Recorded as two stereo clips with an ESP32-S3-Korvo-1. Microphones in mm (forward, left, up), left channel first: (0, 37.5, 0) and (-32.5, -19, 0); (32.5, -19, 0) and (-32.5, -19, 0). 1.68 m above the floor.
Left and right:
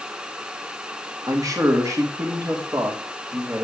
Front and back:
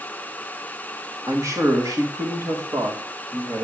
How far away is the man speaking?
About 2.5 m.